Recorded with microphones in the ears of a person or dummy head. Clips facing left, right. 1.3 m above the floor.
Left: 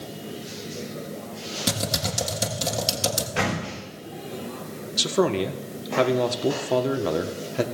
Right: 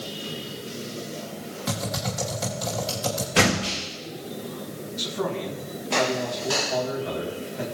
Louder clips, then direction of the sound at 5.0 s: Left 7 dB; 75° left (ahead or behind).